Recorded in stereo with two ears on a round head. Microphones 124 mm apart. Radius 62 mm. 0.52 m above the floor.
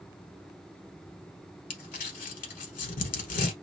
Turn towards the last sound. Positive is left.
turn(degrees=60)  # may be behind; listen again after turning